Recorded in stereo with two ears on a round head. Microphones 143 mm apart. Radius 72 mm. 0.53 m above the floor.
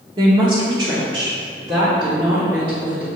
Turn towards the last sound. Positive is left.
turn(degrees=-25)  # may be behind; listen again after turning